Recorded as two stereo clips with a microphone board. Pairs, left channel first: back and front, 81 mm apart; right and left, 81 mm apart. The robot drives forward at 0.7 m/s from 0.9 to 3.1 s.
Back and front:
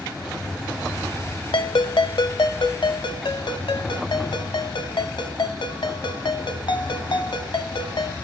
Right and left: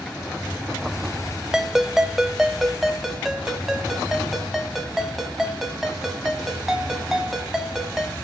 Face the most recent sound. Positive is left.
turn(degrees=175)